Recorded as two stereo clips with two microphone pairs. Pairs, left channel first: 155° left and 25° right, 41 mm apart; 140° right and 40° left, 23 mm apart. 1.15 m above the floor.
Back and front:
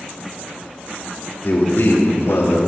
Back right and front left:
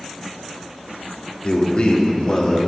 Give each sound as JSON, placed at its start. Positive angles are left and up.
{"t": 1.4, "sound": "a man speaking", "azimuth_deg": -170, "distance_m": 3.0}